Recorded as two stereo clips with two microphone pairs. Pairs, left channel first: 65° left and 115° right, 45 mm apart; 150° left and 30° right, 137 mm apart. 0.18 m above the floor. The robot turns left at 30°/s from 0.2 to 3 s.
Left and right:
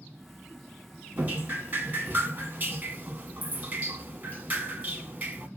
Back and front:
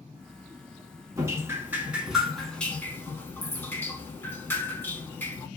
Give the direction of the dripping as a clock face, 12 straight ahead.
3 o'clock.